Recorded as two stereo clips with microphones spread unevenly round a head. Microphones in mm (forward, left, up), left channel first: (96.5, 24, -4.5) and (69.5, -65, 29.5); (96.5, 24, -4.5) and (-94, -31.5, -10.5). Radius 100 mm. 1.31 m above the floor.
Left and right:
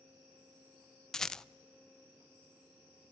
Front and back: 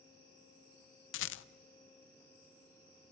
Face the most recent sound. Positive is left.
turn(degrees=-10)